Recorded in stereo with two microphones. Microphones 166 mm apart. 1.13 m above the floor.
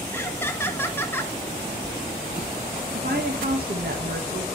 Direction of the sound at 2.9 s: 65° right (ahead or behind).